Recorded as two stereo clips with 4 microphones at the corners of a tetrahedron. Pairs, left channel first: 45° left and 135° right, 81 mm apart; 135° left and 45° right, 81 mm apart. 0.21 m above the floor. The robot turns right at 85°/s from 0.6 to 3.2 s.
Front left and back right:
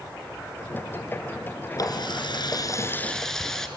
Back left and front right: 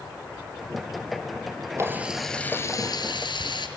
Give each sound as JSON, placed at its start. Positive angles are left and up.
{"t": 1.8, "sound": "a running tap", "azimuth_deg": 5, "distance_m": 2.0}